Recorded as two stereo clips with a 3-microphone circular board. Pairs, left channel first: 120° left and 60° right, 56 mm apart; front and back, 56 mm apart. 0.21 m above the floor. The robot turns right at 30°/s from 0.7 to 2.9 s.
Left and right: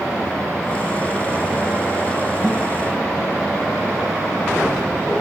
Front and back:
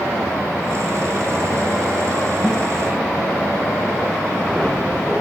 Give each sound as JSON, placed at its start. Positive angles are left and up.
{"t": 2.4, "sound": "a guitar", "azimuth_deg": -135, "distance_m": 6.5}